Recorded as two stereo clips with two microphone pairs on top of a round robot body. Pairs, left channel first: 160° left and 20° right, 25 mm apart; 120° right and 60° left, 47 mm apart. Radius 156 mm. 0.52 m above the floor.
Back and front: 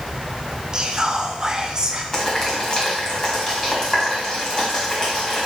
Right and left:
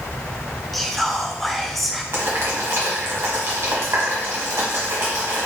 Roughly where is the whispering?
Ahead right.